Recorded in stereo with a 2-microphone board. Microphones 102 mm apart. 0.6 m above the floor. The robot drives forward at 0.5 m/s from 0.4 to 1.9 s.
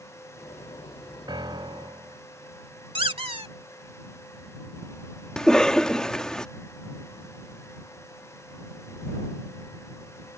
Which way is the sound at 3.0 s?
65° right (ahead or behind).